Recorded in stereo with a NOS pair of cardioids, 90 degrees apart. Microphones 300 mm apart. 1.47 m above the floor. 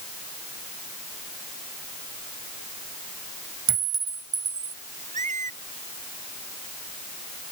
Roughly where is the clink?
Ahead right.